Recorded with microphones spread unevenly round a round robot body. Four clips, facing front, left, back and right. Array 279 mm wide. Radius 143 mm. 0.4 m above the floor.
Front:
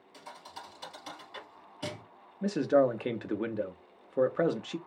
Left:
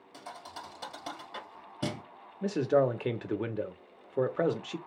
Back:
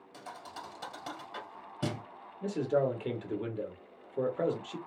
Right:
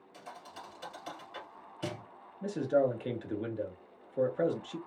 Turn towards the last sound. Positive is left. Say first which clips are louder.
# left 2 dB, front 4 dB
turn(degrees=70)